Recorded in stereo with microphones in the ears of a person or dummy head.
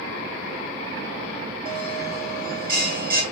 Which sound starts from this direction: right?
A bell, at 1.6 s.